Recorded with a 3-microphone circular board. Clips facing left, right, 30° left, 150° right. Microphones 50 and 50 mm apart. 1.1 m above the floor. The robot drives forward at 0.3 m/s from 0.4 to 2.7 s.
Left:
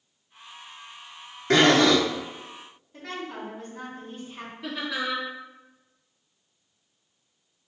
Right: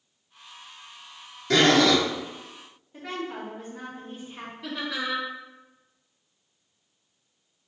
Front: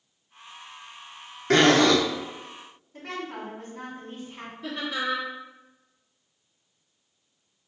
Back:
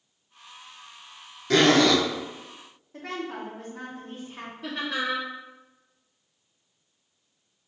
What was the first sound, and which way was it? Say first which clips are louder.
A zipper: left 1 dB, front 1 dB; 55° left.